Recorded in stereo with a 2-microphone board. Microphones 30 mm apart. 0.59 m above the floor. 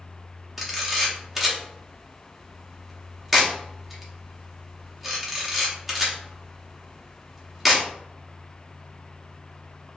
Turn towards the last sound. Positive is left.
turn(degrees=-5)  # may be behind; listen again after turning